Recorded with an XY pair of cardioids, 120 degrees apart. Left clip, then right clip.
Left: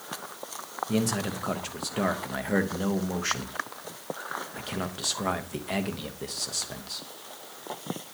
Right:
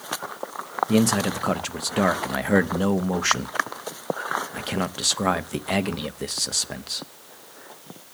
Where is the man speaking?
40° right, 0.9 m.